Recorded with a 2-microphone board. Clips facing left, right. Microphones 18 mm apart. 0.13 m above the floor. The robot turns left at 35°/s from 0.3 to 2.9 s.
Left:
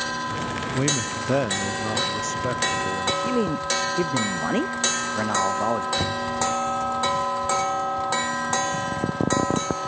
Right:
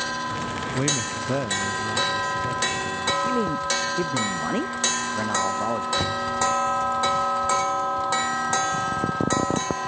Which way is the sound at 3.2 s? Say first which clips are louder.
Even; 15° left (ahead or behind).